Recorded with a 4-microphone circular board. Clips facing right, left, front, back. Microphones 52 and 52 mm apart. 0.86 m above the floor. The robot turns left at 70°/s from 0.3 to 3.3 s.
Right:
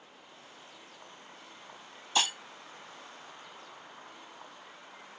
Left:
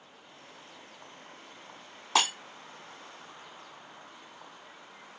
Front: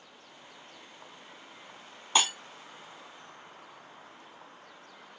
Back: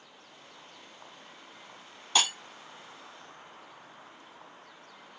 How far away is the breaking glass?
About 1.2 m.